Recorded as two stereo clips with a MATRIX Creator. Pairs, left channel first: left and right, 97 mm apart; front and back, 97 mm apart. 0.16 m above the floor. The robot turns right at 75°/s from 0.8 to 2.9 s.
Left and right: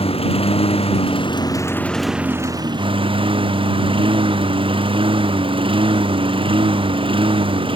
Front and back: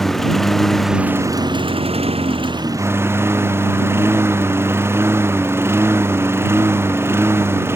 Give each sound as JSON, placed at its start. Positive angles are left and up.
{"t": 0.0, "sound": "a lawn mower", "azimuth_deg": 85}